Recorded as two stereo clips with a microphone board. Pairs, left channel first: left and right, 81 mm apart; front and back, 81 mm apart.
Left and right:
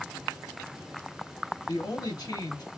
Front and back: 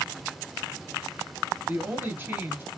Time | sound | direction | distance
1.7 | a woman speaking | 115° left | 3 m